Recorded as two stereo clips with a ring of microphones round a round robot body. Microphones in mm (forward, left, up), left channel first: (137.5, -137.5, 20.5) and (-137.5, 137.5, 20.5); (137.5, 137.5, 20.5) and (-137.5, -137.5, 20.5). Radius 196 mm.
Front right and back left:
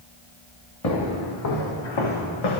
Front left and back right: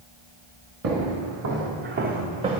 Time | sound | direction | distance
0.8 | footsteps | 80° right | 4 m